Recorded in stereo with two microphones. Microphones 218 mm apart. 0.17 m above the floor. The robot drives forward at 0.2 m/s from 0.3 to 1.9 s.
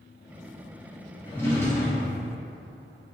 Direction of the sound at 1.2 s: 10° left (ahead or behind).